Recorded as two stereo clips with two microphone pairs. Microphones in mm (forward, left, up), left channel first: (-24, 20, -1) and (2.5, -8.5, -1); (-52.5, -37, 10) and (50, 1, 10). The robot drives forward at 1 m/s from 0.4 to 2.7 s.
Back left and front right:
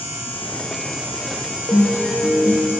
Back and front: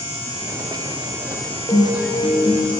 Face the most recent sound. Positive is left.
turn(degrees=155)